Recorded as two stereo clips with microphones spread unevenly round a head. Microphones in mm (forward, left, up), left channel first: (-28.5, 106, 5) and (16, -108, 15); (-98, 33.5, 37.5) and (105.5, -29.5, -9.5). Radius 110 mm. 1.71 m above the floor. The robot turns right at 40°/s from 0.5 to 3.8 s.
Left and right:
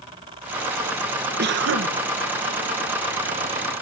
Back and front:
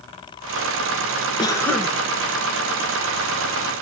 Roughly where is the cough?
Behind right.